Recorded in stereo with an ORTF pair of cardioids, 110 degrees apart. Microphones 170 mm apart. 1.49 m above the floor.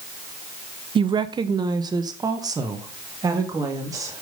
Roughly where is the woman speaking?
Ahead right.